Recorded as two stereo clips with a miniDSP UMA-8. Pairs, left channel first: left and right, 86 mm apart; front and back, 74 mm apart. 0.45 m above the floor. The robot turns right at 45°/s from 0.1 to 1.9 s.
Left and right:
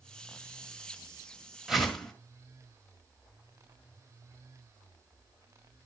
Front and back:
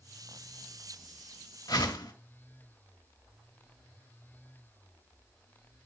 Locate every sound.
1.7 s a whoosh: 5° right, 1.6 m; by 2.1 s 5° left, 1.6 m